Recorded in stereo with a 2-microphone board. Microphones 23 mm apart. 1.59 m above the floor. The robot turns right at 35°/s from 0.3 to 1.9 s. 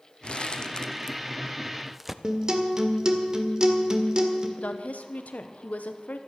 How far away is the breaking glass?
No breaking glass in this recording.